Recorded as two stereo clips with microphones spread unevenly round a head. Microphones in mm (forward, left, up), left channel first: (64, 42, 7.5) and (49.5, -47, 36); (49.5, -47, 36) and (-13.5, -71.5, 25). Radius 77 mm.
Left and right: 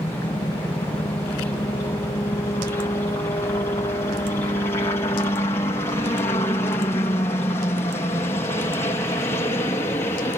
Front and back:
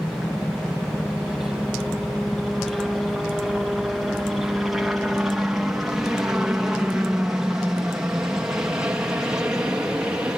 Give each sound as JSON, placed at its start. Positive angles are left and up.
{"t": 0.0, "sound": "a helicopter", "azimuth_deg": 105}